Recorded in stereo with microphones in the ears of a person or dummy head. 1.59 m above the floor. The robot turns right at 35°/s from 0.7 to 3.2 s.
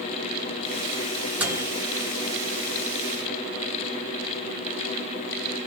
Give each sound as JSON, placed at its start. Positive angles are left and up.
{"t": 1.4, "sound": "a microwave", "side_deg": -10, "distance_m": 0.5}